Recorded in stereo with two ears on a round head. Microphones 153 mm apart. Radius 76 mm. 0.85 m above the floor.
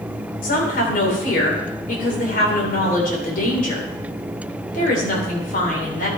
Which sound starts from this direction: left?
A woman speaking, at 0.4 s.